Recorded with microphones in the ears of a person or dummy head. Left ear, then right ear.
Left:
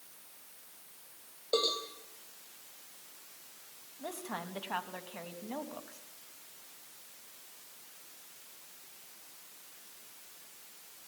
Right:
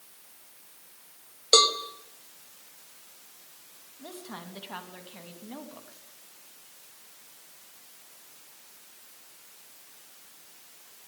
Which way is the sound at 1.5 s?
65° right (ahead or behind).